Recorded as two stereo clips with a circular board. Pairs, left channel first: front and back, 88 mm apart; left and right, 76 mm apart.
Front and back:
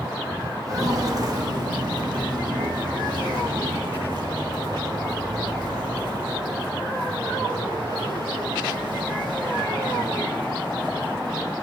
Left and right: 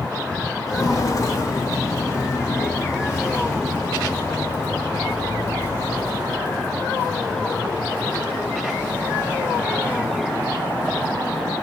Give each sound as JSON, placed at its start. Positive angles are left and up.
{"t": 0.7, "sound": "footsteps", "azimuth_deg": 130, "distance_m": 1.7}